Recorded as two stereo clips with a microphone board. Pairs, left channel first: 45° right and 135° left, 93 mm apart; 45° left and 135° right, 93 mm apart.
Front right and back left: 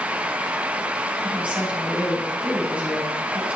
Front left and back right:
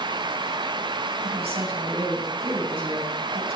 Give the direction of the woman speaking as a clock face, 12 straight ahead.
5 o'clock.